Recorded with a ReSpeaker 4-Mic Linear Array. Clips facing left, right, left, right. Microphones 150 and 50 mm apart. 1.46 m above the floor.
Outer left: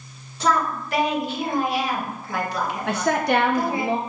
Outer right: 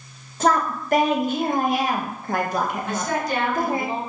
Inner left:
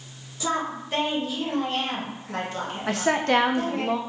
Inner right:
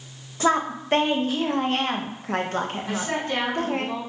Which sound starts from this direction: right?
A woman speaking, at 0.4 s.